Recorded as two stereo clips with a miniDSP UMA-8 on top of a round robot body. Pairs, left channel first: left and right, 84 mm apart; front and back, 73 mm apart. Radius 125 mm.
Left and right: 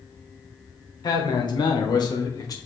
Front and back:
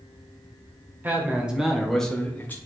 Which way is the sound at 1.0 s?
120° left.